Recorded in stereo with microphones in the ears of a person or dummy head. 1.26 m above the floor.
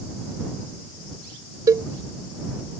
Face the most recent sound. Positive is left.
turn(degrees=-20)  # may be behind; listen again after turning